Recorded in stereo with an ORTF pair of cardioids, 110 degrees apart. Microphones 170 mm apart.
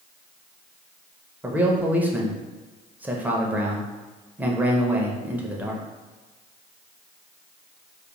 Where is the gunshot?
I don't hear a gunshot.